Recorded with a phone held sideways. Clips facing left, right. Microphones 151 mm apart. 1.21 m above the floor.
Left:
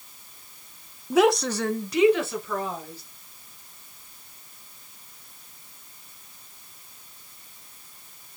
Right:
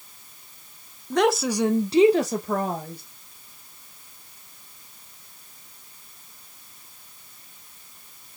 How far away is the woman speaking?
About 1.1 m.